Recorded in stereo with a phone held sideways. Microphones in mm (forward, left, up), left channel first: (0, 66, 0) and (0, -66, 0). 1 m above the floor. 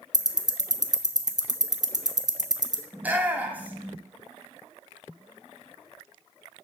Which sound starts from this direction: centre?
A shout, at 2.9 s.